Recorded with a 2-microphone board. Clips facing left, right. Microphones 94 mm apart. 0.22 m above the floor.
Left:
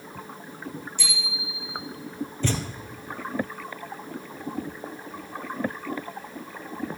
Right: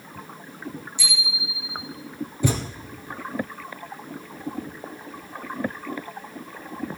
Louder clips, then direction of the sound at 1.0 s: Right 2 dB; 55° left (ahead or behind).